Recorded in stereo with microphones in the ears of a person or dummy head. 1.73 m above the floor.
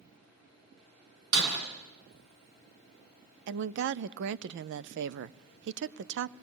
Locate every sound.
1.3 s breaking glass: 70° right (ahead or behind), 5 m
3.5 s a woman speaking: 70° right (ahead or behind), 0.6 m